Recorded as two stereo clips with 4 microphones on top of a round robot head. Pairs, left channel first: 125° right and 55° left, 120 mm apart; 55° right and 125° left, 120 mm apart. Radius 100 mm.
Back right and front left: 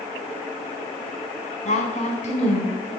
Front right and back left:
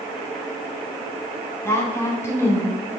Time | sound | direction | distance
1.6 | a woman speaking | 125° right | 2.5 m